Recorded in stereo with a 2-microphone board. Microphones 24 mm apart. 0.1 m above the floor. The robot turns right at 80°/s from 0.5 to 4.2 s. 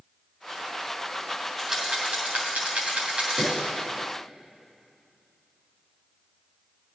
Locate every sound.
1.6 s a rattle: 5° right (ahead or behind), 3 m; by 3.5 s 25° right (ahead or behind), 3 m
3.4 s a pop: 25° right (ahead or behind), 3.5 m; by 3.6 s 10° right (ahead or behind), 3.5 m